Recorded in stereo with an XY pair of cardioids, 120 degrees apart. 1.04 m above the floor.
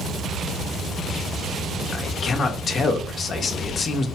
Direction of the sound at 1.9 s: 40° left.